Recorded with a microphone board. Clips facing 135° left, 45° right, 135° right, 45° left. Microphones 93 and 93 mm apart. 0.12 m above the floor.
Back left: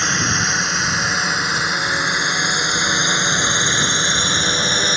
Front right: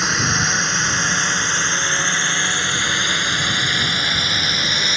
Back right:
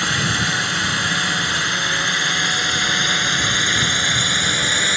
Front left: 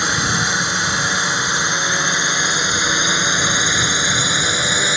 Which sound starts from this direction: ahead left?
A drone, at 0.0 s.